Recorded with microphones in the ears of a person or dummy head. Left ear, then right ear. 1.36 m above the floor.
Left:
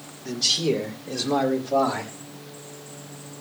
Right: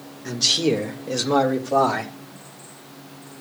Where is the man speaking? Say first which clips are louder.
Right 3 dB; 55° right (ahead or behind), 1.6 m; by 2.1 s 85° right, 3.5 m.